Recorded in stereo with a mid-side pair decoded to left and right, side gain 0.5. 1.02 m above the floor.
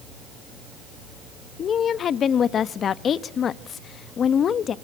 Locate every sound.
1.6 s a woman speaking: 50° left, 1.0 m